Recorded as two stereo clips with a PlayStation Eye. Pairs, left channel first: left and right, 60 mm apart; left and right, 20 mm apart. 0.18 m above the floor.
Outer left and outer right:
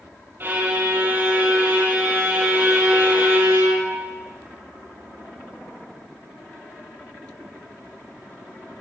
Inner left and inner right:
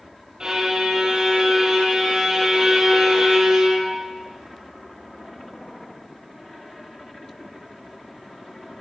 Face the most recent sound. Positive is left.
turn(degrees=-35)  # may be behind; listen again after turning